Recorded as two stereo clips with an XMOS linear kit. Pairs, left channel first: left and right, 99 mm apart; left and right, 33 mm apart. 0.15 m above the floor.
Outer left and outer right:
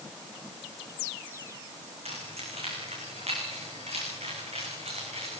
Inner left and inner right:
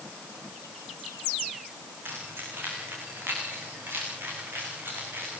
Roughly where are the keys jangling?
Right.